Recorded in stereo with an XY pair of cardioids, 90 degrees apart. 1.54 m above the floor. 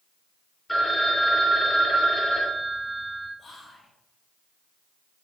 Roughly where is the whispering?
Ahead left.